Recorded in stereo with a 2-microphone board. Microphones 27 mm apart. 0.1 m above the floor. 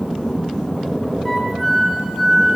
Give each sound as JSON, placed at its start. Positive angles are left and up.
{"t": 1.2, "sound": "a flute", "side_deg": 0, "distance_m": 1.4}